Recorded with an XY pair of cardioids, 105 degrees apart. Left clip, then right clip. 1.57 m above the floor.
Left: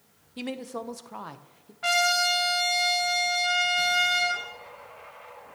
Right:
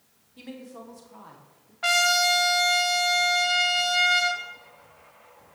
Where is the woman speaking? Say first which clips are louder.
Left 8 dB; 65° left, 0.9 m.